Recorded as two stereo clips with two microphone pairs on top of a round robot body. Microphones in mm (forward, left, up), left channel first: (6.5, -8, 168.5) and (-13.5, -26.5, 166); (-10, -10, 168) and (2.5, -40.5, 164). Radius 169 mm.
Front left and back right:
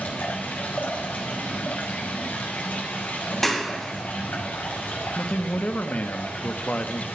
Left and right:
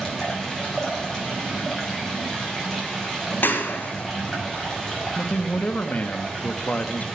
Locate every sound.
0.0 s running water: 25° left, 5.5 m
3.4 s a clap: 125° left, 2.5 m
5.2 s a man speaking: 70° left, 1.5 m